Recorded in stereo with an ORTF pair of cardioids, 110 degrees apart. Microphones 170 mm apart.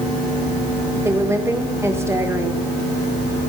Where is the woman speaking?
15° right, 1.4 m.